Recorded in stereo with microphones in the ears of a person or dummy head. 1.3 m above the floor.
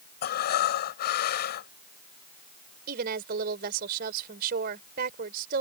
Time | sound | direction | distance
0.2 | breathing | 50° left (ahead or behind) | ?
2.9 | a woman speaking | 50° right (ahead or behind) | ?